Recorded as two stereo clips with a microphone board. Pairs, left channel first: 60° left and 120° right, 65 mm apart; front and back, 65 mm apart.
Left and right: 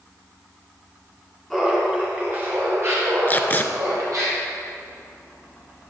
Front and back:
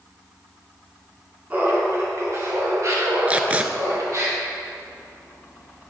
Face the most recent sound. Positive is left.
turn(degrees=115)